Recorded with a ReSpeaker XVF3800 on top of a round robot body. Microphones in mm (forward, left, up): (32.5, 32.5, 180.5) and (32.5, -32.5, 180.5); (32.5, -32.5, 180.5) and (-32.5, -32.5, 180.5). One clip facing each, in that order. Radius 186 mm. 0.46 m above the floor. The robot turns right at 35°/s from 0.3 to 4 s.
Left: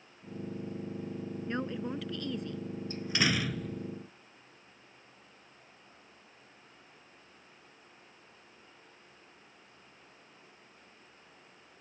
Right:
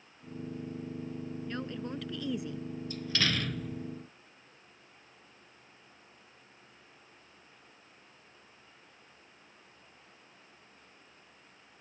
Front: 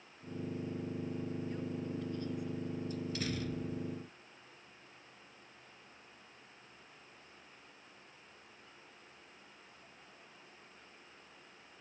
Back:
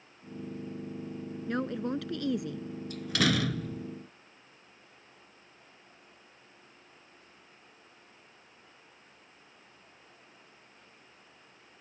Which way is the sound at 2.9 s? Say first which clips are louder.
Left 2 dB, back 15 dB; 155° left.